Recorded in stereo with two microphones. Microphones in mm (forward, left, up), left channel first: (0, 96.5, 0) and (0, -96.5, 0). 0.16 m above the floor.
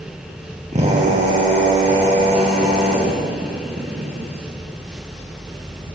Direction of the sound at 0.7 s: 35° right (ahead or behind).